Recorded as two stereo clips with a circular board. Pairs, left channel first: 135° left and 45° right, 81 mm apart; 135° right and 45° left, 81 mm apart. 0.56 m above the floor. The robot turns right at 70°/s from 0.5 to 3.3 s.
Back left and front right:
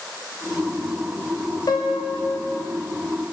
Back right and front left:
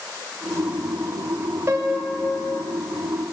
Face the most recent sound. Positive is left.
turn(degrees=-145)